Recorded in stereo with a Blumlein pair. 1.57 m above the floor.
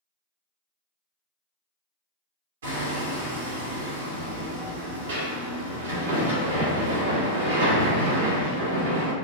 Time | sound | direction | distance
2.6 | hammering | 65° right | 1.0 m